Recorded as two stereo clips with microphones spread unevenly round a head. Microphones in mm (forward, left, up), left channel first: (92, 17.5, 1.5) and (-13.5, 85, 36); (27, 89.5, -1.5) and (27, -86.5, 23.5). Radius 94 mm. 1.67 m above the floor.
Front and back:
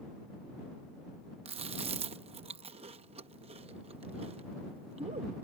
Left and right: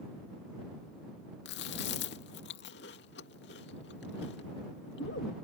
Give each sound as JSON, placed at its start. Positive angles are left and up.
{"t": 1.4, "sound": "chewing", "azimuth_deg": 125}